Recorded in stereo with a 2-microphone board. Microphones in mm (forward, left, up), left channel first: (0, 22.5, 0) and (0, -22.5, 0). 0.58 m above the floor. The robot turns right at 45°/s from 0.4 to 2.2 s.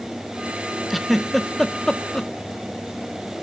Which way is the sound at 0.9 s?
5° right (ahead or behind).